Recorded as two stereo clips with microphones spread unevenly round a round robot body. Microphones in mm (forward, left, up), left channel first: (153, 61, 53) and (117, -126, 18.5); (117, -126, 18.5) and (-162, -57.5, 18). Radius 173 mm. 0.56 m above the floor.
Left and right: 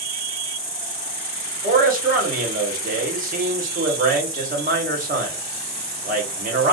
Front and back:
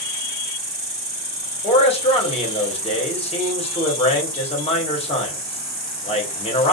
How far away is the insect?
About 1.8 m.